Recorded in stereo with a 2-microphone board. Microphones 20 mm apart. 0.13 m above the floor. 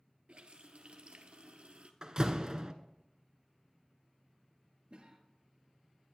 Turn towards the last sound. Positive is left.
turn(degrees=-40)  # may be behind; listen again after turning